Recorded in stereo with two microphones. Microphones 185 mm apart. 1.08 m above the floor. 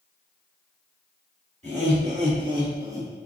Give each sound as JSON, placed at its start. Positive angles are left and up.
{"t": 1.6, "sound": "laughter", "side_deg": -35, "distance_m": 2.0}